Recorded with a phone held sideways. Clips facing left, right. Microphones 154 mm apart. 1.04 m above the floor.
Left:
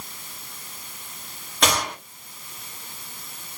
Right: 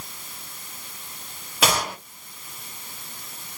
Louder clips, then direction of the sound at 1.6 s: Even; 5° right (ahead or behind).